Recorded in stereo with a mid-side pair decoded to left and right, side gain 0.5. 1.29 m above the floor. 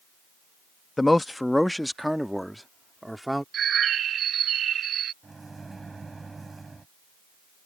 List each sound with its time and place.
1.0 s a man speaking: 15° left; by 3.4 s 5° right
3.5 s a bird: 55° right
5.2 s a microwave: 20° right